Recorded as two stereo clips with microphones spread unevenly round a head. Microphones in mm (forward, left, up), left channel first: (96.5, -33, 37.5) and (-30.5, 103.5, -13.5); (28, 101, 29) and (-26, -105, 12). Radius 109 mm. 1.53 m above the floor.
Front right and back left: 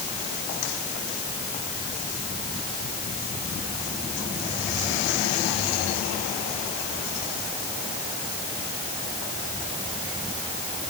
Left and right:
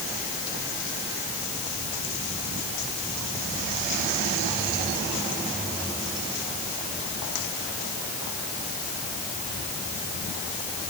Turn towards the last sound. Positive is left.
No sound to turn to.